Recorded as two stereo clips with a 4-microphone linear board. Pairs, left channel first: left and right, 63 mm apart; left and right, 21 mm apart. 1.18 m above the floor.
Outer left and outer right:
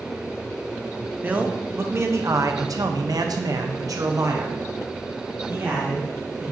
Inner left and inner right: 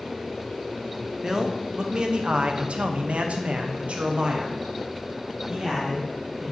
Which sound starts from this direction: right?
A man speaking, at 1.2 s.